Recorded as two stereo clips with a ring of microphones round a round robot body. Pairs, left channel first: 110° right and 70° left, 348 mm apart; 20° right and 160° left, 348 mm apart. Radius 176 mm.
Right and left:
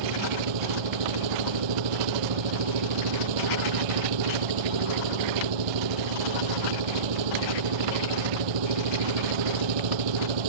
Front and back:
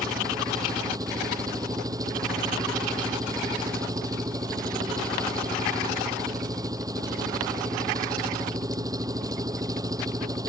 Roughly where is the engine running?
Left.